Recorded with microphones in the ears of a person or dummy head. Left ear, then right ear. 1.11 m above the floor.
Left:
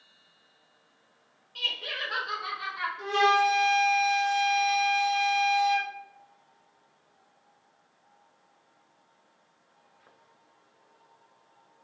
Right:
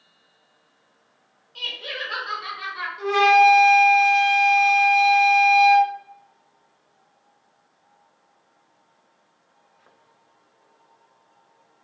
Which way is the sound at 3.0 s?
40° right (ahead or behind).